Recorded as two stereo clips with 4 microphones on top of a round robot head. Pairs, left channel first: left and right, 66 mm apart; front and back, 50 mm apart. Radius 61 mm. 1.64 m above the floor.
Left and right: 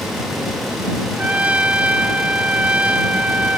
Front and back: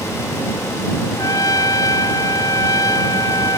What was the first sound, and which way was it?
A trumpet, 25° right.